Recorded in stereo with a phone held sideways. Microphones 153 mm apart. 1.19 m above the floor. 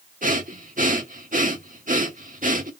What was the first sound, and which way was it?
Breathing, 60° right (ahead or behind).